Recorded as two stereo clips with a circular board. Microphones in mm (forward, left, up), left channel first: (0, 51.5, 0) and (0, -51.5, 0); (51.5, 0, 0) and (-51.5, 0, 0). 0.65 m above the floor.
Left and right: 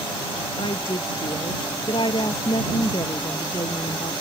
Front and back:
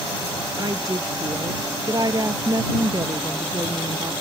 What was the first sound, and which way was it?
A woman speaking, 130° left.